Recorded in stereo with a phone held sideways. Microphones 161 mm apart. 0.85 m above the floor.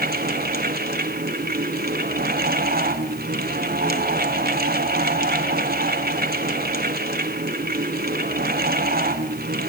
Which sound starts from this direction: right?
A fan, at 0.0 s.